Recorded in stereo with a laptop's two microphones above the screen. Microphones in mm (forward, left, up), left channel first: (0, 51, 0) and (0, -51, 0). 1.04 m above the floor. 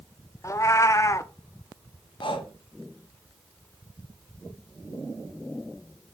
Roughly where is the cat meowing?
Left.